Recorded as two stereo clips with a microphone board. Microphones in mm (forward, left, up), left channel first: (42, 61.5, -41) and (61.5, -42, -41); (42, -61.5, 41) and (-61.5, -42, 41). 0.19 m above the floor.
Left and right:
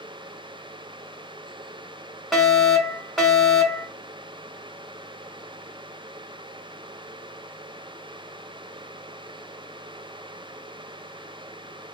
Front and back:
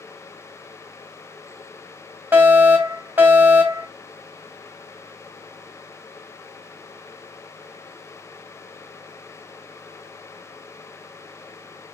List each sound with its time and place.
2.3 s a fire alarm: 175° right, 1.9 m